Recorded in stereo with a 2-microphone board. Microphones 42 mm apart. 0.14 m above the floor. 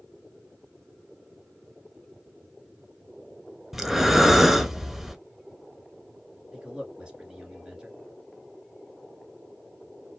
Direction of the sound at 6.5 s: 15° right (ahead or behind).